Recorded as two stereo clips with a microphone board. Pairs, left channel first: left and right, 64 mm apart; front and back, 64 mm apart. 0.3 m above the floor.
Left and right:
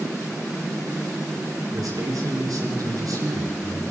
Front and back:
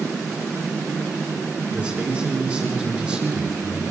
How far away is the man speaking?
About 4.5 m.